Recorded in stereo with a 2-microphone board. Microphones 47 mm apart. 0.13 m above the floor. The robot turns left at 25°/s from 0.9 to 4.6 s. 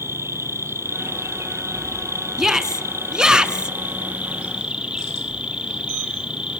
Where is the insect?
70° right, 1.6 m; by 6.6 s 160° right, 1.6 m.